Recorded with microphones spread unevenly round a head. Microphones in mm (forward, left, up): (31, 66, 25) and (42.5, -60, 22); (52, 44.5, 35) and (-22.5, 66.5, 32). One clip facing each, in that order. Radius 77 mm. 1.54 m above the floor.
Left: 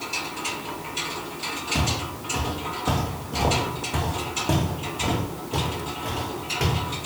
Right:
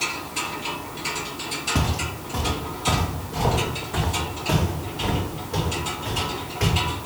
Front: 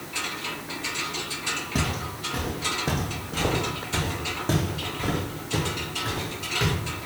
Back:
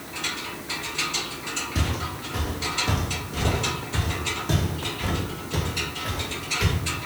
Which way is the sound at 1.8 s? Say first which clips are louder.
Right 2 dB, even; 5° right.